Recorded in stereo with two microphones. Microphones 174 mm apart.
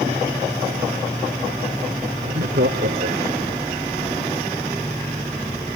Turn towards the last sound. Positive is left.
turn(degrees=-75)  # may be behind; listen again after turning